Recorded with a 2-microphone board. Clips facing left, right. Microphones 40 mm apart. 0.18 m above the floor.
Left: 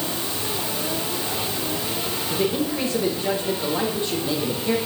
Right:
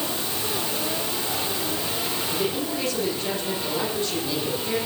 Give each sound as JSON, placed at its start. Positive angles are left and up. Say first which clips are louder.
{"t": 2.3, "sound": "a man speaking", "louder": "left 5 dB", "side_deg": 20, "distance_m": 8.0}